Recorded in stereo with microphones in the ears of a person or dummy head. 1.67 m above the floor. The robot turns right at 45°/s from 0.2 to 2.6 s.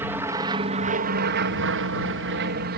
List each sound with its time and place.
0.0 s an aircraft: 170° right; by 2.8 s 60° right